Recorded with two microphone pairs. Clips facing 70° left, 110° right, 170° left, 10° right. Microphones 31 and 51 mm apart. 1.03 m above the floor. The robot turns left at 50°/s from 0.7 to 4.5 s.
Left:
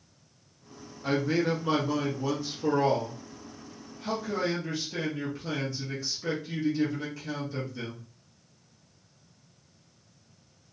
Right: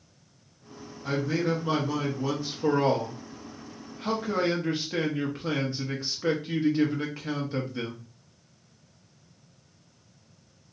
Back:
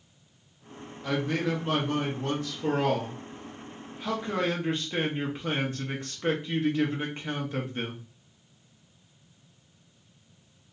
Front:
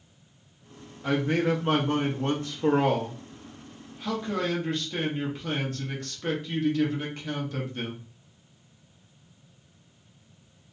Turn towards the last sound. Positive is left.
turn(degrees=-135)